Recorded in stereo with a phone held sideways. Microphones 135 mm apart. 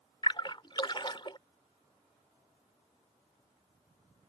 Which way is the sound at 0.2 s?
35° left (ahead or behind).